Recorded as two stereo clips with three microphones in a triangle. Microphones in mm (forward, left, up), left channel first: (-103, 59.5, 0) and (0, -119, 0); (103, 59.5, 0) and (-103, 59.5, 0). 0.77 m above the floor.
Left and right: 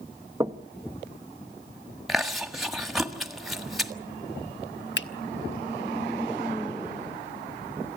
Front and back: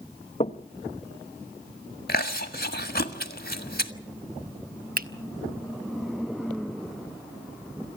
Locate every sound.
0.4 s knocking: straight ahead, 0.6 m
2.1 s chewing: 30° left, 1.5 m
5.0 s a finger snap: 140° left, 1.0 m